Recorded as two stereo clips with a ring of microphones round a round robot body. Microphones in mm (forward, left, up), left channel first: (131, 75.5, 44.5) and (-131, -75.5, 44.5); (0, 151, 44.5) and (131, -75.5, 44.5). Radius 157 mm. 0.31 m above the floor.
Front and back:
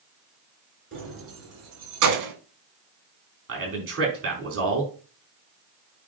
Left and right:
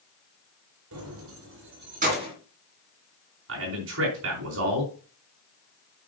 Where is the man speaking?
105° right, 4.5 m.